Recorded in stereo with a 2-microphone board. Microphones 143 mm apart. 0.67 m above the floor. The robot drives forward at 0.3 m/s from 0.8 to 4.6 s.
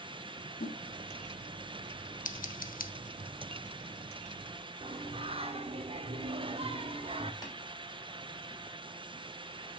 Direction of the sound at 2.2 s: 75° left (ahead or behind).